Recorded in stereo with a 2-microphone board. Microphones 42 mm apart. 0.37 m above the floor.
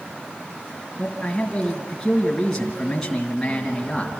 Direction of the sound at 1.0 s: 5° left (ahead or behind).